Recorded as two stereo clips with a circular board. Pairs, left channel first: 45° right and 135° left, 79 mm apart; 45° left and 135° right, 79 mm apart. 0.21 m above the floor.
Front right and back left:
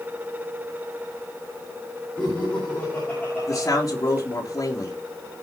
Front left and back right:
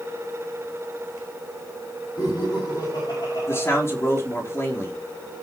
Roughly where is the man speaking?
Ahead.